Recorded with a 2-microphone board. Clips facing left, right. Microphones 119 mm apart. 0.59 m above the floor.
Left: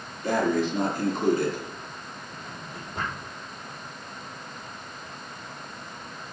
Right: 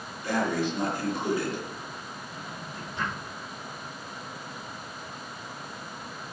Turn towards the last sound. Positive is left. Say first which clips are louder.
# even
turn(degrees=55)  # may be behind; listen again after turning